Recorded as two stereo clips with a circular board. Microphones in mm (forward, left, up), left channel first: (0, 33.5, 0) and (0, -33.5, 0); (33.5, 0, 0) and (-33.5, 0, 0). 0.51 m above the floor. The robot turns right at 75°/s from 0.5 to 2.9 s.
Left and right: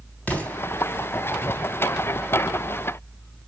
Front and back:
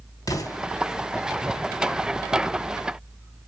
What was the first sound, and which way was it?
An explosion, 25° left.